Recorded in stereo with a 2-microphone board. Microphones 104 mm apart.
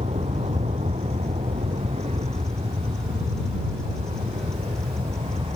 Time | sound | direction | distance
0.0 | an aircraft | 75° right (ahead or behind) | ?